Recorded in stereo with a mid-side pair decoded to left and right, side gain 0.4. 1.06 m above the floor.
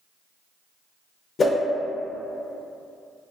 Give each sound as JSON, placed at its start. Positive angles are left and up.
{"t": 1.4, "sound": "a whoosh", "azimuth_deg": 50, "distance_m": 0.6}